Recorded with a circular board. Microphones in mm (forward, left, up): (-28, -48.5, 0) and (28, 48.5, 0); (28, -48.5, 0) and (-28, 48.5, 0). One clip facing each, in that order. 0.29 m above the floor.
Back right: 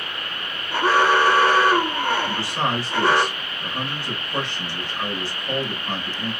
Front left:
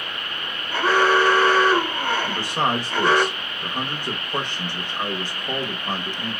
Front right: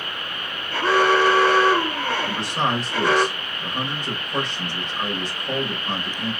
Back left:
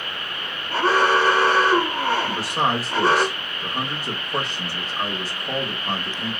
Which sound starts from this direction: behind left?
An alarm, at 0.7 s.